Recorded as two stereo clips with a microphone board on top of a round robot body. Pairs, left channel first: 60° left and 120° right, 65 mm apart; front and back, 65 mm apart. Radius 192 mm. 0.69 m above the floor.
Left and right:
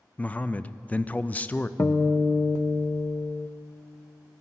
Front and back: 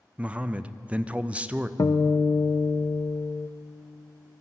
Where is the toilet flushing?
I don't hear a toilet flushing.